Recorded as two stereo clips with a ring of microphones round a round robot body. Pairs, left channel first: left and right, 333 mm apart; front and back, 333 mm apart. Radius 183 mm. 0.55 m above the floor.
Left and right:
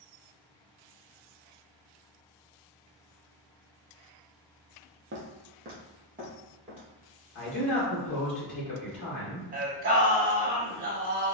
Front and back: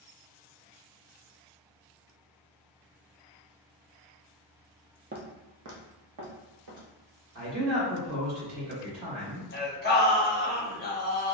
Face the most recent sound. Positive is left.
turn(degrees=-40)